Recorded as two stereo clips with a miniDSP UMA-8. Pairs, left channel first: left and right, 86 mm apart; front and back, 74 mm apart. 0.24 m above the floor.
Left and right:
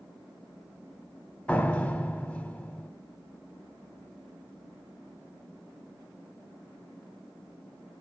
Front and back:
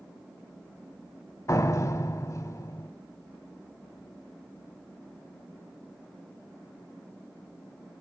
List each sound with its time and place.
1.5 s a door slam: 20° left, 0.9 m